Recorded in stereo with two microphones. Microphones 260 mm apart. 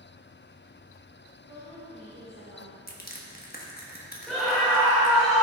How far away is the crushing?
About 1.4 m.